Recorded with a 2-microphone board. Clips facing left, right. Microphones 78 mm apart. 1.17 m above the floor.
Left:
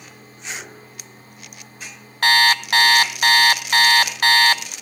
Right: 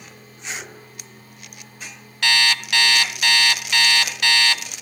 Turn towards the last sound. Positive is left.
turn(degrees=40)  # may be behind; listen again after turning